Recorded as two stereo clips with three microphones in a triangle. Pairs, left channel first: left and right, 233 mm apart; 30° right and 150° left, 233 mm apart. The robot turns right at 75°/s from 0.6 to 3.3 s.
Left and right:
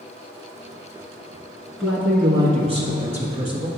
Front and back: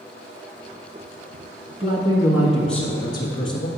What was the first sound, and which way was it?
A man speaking, straight behind.